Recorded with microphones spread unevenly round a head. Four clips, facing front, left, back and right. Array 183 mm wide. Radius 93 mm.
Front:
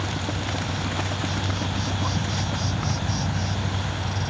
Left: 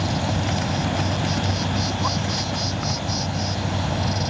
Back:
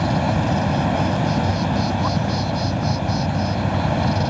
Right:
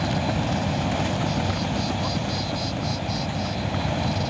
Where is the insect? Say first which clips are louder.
Even, back 9 dB; 175° right.